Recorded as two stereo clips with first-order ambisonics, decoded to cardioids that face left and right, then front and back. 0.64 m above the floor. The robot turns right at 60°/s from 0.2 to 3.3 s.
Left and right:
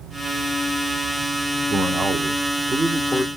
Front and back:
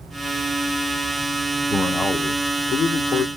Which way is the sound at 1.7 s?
85° right.